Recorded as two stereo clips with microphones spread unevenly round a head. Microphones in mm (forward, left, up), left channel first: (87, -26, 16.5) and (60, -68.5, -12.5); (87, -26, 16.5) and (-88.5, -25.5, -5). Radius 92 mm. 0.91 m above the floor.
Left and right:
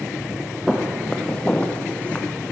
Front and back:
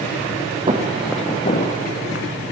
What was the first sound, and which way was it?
Footsteps, 120° left.